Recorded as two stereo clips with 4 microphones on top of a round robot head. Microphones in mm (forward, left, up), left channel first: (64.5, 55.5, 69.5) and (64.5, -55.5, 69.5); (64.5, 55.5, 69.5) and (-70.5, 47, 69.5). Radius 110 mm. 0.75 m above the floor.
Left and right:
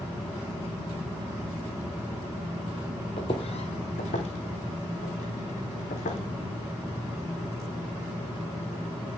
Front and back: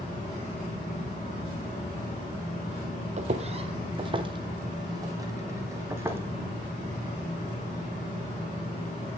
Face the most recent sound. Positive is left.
turn(degrees=110)